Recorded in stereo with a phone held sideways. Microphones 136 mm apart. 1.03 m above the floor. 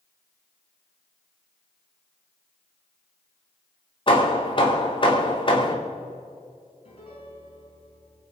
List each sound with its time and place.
4.1 s hammering: 40° left (ahead or behind), 2.5 m
6.8 s a piano: 50° left (ahead or behind), 4.5 m